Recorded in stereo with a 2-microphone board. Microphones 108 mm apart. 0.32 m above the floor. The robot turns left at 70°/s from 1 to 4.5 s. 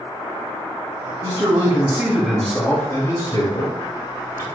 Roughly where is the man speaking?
Right.